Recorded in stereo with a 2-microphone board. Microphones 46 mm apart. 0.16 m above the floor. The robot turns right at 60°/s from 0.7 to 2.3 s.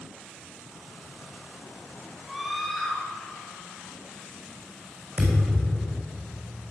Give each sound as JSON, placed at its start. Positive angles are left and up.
{"t": 2.2, "sound": "a scream", "side_deg": -10, "distance_m": 2.5}
{"t": 5.2, "sound": "a thud", "side_deg": -30, "distance_m": 3.5}